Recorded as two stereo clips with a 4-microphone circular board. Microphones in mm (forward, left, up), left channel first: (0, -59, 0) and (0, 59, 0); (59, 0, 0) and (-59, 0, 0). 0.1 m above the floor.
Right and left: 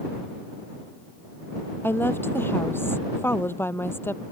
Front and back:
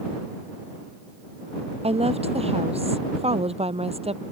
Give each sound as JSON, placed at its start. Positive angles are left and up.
{"t": 1.8, "sound": "a woman speaking", "azimuth_deg": -160}